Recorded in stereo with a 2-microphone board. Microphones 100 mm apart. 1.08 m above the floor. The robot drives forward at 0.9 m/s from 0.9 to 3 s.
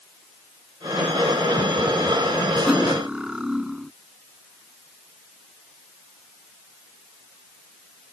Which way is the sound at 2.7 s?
10° right (ahead or behind).